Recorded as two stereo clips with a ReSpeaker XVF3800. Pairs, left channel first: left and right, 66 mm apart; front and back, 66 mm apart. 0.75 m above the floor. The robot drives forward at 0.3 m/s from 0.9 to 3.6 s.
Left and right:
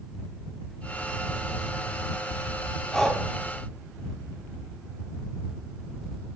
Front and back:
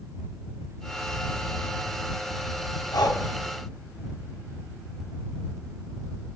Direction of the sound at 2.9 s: 5° left.